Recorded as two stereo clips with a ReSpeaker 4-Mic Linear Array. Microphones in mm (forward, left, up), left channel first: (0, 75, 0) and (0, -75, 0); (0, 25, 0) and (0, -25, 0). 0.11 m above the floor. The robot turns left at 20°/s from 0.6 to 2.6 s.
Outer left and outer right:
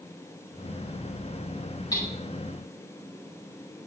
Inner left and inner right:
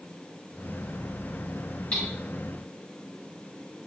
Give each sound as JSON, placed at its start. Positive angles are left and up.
{"t": 1.9, "sound": "hammering", "side_deg": 25, "distance_m": 7.5}